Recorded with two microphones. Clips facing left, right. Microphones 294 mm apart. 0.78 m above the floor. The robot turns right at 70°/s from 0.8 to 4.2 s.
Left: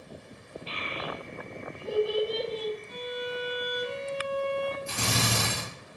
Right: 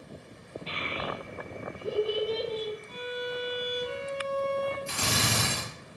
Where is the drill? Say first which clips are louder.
Left 1 dB; 50° left (ahead or behind), 1.2 m.